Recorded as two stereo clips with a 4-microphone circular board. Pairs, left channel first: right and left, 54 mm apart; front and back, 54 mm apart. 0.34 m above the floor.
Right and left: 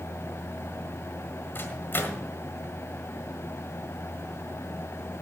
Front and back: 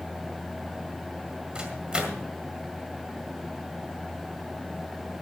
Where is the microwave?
115° right, 1.7 m.